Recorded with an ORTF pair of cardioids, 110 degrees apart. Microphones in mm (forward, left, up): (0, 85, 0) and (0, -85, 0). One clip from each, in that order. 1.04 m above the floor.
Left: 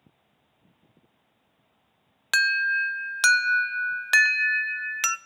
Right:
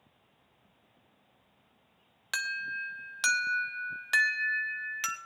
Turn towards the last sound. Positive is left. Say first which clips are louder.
# left 12 dB
turn(degrees=35)